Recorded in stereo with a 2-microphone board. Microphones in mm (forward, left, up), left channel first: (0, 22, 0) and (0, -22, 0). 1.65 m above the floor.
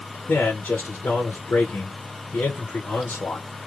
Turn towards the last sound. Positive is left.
turn(degrees=60)  # may be behind; listen again after turning